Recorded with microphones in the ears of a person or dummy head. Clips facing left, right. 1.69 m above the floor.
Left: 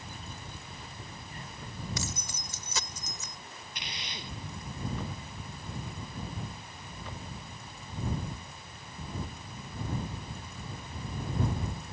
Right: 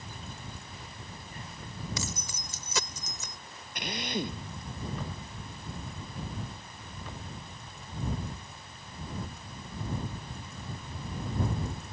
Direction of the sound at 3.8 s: 45° right (ahead or behind).